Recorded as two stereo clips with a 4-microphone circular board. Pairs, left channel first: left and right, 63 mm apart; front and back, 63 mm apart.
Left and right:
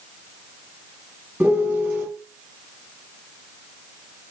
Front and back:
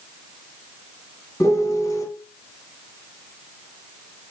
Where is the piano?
25° right, 1.0 m.